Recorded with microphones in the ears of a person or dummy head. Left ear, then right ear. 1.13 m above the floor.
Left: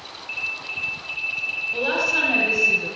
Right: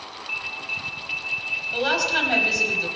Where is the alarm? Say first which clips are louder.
Left 1 dB; 5° right (ahead or behind), 4.5 m.